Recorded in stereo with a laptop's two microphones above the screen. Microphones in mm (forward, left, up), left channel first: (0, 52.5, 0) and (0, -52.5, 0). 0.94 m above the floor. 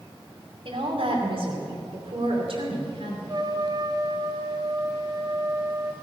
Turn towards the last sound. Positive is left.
turn(degrees=-40)  # may be behind; listen again after turning